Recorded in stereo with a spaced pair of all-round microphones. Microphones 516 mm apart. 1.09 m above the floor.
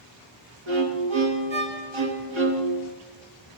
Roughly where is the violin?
Right.